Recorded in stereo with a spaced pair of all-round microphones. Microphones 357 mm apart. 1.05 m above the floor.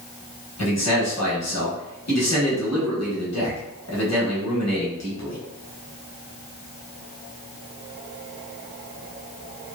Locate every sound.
0.6 s a man speaking: 45° left (ahead or behind), 1.1 m